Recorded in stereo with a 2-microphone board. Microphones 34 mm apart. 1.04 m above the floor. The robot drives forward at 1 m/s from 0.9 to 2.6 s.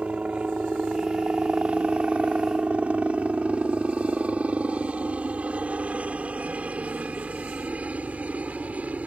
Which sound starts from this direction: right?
A helicopter, at 0.0 s.